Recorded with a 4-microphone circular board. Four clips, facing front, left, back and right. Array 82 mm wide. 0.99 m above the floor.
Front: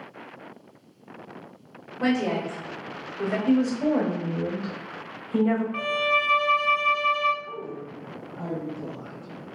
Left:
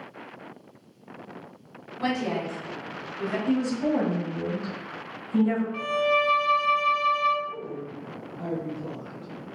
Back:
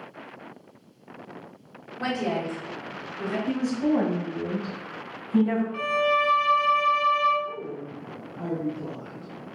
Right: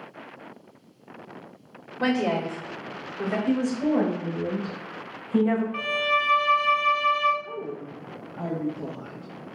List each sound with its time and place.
2.0 s a woman speaking: 80° right, 1.9 m; by 3.4 s 55° right, 2.0 m
3.5 s a woman speaking: 25° right, 2.5 m
5.7 s a violin: 45° right, 0.7 m
7.4 s a woman speaking: 70° right, 1.3 m